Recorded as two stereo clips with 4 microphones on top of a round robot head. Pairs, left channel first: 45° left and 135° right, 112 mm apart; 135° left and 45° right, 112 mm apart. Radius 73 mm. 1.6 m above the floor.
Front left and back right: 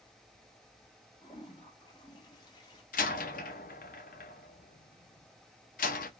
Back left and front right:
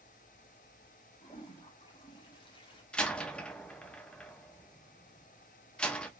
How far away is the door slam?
About 0.7 m.